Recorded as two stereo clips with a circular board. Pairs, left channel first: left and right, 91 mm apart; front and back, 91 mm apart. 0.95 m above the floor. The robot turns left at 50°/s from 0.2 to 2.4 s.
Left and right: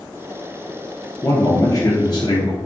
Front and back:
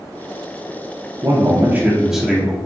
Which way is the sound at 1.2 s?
145° left.